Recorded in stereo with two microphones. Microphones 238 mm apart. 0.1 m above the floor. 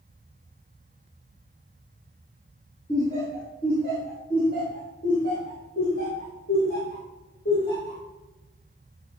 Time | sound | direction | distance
2.9 | laughter | 40° left (ahead or behind) | 3.5 m